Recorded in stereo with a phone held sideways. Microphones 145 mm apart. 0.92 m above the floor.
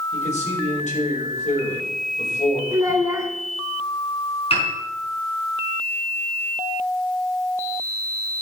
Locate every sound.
0.1 s a man speaking: 55° left (ahead or behind), 4.5 m
2.7 s a child speaking: 20° right (ahead or behind), 1.6 m
4.5 s a piano: 45° left (ahead or behind), 4.5 m